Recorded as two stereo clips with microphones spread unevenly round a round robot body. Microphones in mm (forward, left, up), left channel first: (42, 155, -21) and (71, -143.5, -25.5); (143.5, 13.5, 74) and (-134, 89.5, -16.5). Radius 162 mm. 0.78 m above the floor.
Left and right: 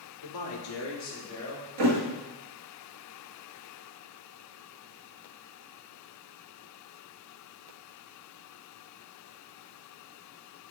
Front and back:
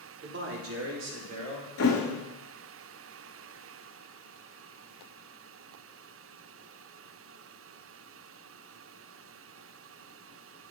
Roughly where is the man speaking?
Behind left.